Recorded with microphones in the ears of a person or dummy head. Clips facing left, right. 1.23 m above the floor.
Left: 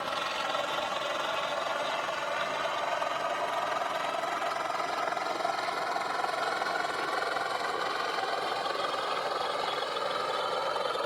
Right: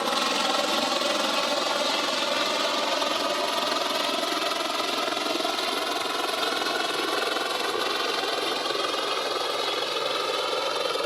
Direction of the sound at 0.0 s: 60° right (ahead or behind).